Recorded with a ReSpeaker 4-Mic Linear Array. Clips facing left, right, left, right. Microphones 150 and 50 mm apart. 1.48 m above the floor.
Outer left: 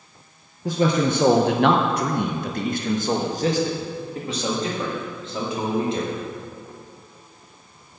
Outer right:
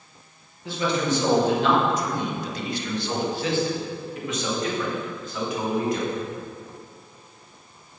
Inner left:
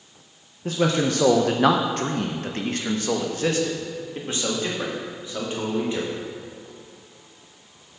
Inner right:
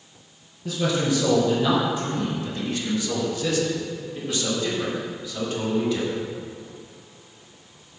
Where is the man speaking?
40° left (ahead or behind), 0.9 m; by 6.2 s 25° left (ahead or behind), 3 m.